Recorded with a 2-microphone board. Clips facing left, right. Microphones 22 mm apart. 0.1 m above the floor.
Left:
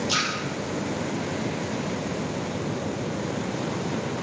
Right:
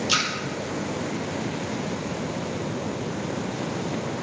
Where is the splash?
35° right (ahead or behind), 1.6 m.